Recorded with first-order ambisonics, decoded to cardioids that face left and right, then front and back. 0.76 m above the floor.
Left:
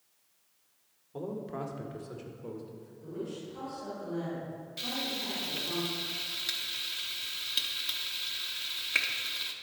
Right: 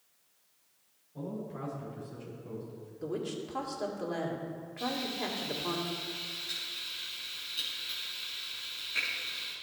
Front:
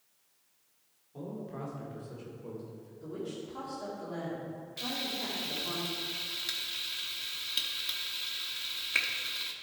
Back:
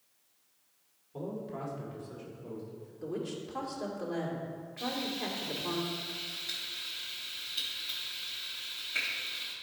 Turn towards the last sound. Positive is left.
turn(degrees=55)